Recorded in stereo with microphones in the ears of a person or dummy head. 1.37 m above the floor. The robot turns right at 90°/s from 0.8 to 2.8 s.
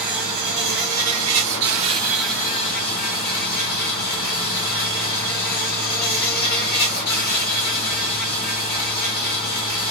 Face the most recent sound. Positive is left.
turn(degrees=55)